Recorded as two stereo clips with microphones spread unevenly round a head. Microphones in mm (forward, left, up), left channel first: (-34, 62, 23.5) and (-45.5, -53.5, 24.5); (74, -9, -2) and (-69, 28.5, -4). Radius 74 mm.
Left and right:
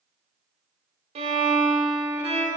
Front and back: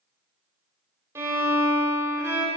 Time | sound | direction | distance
1.1 | a violin | 125° right | 1.5 m